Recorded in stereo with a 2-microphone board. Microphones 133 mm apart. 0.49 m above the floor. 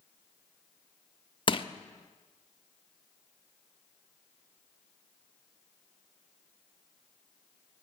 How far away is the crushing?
About 0.6 m.